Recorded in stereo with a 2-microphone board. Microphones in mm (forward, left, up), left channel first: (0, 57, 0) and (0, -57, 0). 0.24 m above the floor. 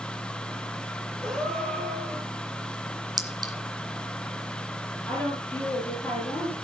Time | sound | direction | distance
1.2 | a gasp | 5° left (ahead or behind) | 5.5 m
3.2 | a clink | 35° right (ahead or behind) | 1.6 m
5.1 | a woman speaking | 15° left (ahead or behind) | 6 m